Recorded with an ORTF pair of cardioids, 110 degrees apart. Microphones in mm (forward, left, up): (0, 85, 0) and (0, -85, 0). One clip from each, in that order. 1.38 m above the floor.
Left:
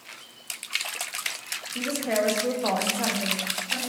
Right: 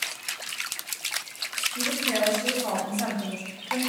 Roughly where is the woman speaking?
Ahead left.